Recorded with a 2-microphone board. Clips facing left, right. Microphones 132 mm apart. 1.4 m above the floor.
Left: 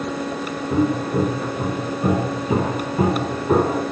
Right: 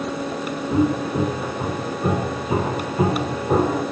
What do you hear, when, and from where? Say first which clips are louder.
0.7 s footsteps: even; 10° left (ahead or behind), 1.5 m; by 3.8 s 50° left (ahead or behind), 2 m